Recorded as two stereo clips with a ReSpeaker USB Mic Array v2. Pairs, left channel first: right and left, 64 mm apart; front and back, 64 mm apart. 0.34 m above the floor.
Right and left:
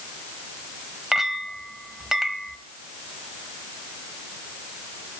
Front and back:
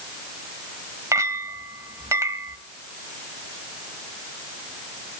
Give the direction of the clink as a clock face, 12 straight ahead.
6 o'clock.